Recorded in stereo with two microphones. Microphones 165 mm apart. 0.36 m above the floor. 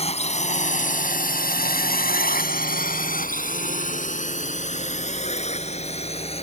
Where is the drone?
40° left (ahead or behind); by 6.4 s 35° left (ahead or behind).